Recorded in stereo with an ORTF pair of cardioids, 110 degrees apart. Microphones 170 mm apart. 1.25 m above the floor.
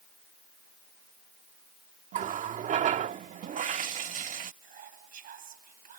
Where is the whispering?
55° right.